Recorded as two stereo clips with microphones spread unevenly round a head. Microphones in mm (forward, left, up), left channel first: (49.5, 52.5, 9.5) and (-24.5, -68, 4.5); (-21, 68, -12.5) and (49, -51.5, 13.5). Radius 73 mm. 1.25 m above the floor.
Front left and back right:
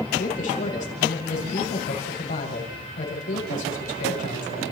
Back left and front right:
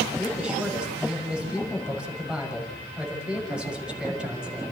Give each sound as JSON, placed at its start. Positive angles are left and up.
{"t": 0.2, "sound": "a man speaking", "azimuth_deg": 25, "distance_m": 6.0}